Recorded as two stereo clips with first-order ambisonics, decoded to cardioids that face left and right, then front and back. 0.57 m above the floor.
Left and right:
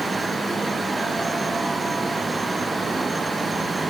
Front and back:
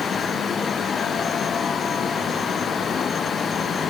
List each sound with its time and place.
Only background noise.